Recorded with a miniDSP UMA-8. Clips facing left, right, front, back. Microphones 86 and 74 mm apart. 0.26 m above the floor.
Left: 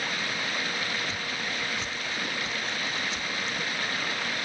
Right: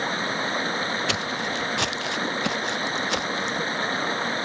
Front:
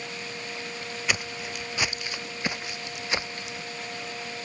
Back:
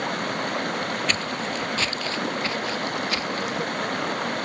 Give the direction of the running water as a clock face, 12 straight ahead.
5 o'clock.